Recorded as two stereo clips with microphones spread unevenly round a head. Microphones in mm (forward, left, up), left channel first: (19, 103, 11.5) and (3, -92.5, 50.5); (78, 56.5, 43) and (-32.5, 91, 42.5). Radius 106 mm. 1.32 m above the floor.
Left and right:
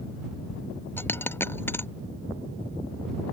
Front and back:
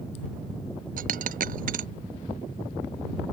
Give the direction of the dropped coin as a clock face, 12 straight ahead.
6 o'clock.